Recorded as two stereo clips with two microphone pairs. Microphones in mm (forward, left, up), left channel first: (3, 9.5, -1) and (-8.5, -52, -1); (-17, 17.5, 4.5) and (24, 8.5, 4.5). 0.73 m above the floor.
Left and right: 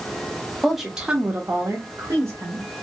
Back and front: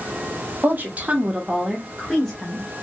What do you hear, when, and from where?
0.6 s a woman speaking: 10° right, 0.9 m; by 2.7 s 120° right, 1.3 m